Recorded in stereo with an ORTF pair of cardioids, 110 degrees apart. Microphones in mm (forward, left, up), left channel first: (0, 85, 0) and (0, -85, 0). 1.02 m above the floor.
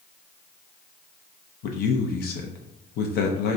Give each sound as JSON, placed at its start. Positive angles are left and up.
{"t": 1.6, "sound": "a man speaking", "azimuth_deg": 70, "distance_m": 0.6}